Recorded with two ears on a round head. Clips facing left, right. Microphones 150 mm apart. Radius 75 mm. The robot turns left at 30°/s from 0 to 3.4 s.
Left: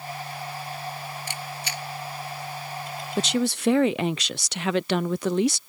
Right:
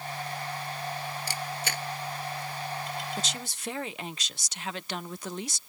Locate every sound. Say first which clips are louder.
1.3 s a camera shutter: even; 30° right (ahead or behind); by 1.8 s 50° right (ahead or behind)
3.2 s a woman speaking: left 13 dB; 50° left (ahead or behind); by 5.6 s 55° left (ahead or behind)